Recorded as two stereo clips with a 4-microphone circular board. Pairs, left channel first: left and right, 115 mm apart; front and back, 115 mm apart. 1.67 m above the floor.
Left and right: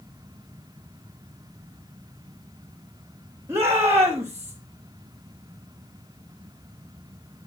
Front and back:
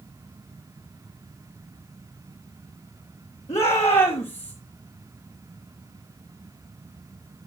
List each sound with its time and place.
3.5 s a shout: 25° right, 3 m